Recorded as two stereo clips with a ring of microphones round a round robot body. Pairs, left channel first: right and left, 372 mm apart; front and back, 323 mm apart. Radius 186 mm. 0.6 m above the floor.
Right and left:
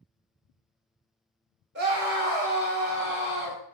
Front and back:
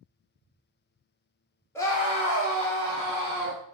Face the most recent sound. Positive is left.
turn(degrees=-60)